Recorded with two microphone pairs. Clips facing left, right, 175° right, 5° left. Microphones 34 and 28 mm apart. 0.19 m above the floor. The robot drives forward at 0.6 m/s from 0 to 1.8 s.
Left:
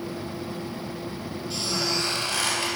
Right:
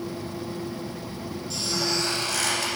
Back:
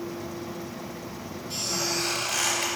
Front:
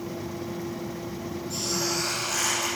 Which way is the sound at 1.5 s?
145° left.